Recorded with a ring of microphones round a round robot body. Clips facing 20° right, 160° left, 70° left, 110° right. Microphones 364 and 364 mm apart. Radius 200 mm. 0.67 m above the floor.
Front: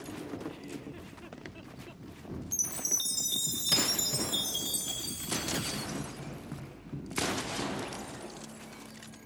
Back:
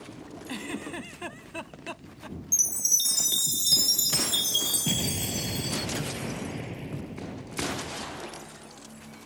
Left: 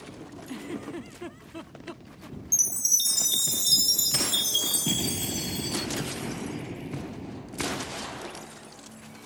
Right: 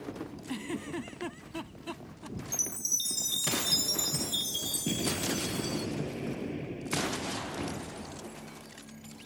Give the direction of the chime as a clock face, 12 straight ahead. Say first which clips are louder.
Front 2 dB, right 2 dB; 8 o'clock.